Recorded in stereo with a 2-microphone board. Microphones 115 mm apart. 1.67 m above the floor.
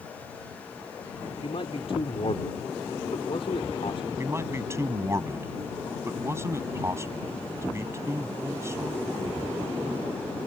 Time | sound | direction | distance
1.4 | a man speaking | 55° left (ahead or behind) | ?
4.2 | a man speaking | 25° right (ahead or behind) | ?